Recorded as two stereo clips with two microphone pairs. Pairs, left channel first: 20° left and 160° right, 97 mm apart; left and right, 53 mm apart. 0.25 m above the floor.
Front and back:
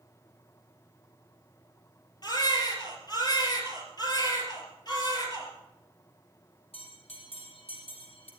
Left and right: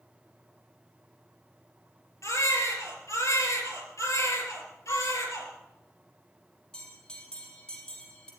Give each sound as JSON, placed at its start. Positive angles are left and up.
{"t": 2.2, "sound": "a baby crying", "azimuth_deg": 70, "distance_m": 4.5}
{"t": 4.9, "sound": "a violin", "azimuth_deg": 115, "distance_m": 3.5}
{"t": 6.7, "sound": "a bell", "azimuth_deg": 15, "distance_m": 5.5}